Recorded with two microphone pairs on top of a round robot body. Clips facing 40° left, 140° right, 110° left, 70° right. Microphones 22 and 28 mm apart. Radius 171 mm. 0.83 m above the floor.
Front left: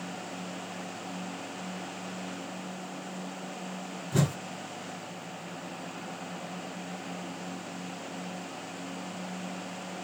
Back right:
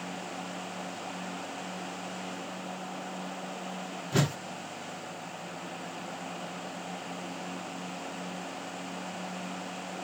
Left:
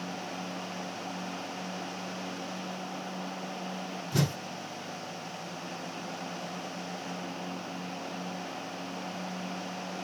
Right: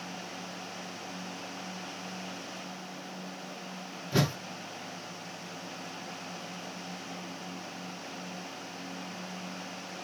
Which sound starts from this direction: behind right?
A whoosh, at 4.1 s.